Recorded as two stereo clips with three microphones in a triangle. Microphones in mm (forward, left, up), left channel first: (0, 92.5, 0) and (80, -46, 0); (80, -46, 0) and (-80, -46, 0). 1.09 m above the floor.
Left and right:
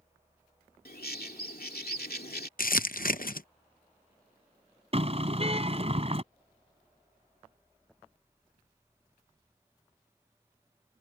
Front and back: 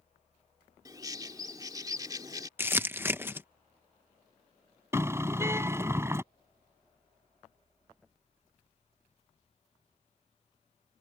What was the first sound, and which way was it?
A bird, 115° left.